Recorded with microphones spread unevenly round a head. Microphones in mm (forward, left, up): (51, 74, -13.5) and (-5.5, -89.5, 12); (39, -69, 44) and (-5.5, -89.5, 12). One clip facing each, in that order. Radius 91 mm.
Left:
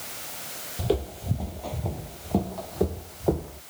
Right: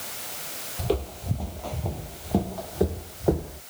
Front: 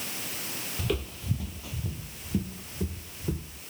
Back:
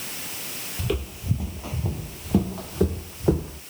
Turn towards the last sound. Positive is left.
turn(degrees=175)